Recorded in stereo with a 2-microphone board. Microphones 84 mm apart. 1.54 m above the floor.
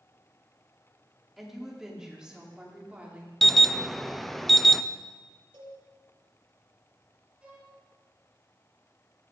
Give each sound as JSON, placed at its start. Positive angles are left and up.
{"t": 1.4, "sound": "a woman speaking", "side_deg": -5, "distance_m": 4.0}
{"t": 3.4, "sound": "an alarm", "side_deg": 0, "distance_m": 0.7}
{"t": 5.5, "sound": "a cowbell", "side_deg": -75, "distance_m": 5.5}
{"t": 7.4, "sound": "a violin", "side_deg": -15, "distance_m": 9.5}